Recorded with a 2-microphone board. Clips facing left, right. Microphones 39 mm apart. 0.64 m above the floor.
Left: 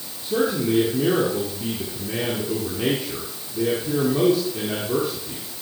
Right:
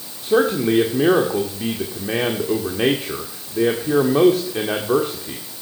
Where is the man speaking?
60° right (ahead or behind), 1.6 m.